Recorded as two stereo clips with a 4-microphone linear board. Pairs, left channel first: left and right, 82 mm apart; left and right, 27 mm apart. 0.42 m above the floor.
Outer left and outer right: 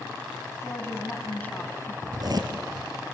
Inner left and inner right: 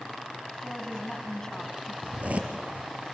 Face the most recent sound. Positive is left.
turn(degrees=-55)  # may be behind; listen again after turning